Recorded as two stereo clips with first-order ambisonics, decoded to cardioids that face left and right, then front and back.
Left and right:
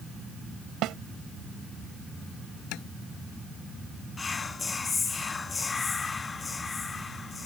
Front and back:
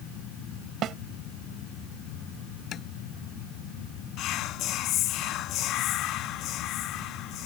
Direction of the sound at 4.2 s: 20° left.